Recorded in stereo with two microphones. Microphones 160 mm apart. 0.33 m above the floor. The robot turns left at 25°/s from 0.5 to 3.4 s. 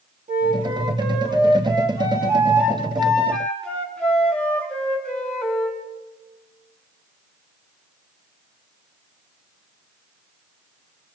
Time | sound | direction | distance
0.3 | a flute | 115° right | 3 m